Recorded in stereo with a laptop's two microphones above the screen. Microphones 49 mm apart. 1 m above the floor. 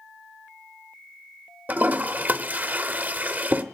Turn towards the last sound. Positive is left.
turn(degrees=-35)  # may be behind; listen again after turning